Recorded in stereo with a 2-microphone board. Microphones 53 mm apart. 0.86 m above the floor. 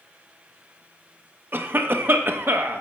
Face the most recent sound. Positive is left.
turn(degrees=-40)  # may be behind; listen again after turning